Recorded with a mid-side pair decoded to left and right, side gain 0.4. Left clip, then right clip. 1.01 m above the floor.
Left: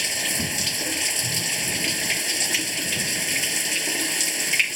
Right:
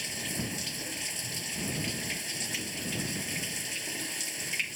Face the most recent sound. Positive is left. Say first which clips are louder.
# left 10 dB
turn(degrees=70)